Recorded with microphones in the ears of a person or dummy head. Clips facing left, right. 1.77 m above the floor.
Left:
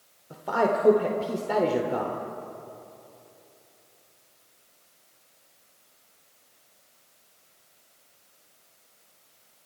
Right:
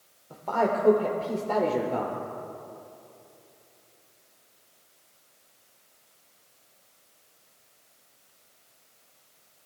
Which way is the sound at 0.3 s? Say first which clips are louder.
Left 1 dB; 15° left (ahead or behind).